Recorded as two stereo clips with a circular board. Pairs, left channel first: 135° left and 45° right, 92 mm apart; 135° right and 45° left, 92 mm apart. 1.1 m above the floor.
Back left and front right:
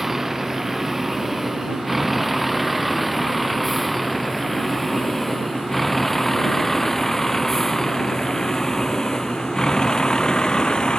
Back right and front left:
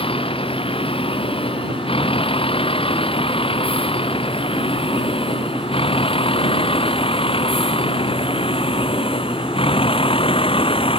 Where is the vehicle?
130° right; by 11.0 s 145° right.